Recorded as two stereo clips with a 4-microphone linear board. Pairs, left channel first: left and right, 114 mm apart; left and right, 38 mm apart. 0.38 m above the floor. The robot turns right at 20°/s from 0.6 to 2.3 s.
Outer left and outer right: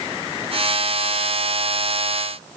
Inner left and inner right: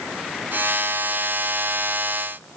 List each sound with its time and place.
Only background noise.